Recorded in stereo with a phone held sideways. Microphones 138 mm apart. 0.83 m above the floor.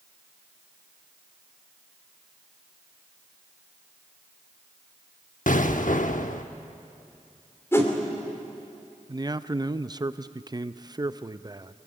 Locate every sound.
5.5 s an explosion: 70° left (ahead or behind), 0.9 m
7.7 s a whoosh: 20° left (ahead or behind), 2.5 m
9.1 s a man speaking: 30° right (ahead or behind), 0.5 m